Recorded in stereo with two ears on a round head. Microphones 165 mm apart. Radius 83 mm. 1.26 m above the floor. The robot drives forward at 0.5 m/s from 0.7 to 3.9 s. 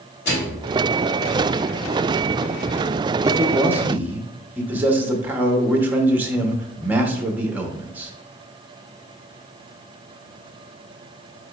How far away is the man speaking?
About 0.6 m.